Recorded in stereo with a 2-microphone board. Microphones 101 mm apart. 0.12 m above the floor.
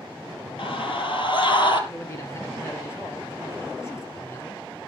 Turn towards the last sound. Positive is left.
turn(degrees=30)  # may be behind; listen again after turning